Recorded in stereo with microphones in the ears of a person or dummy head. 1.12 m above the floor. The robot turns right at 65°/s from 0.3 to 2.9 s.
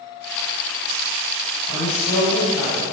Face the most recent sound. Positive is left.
turn(degrees=-150)